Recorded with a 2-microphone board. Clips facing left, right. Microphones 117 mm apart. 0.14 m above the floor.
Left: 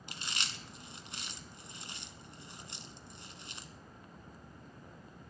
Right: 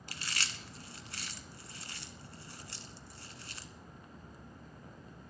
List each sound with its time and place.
0.1 s chewing: 20° left (ahead or behind), 1.0 m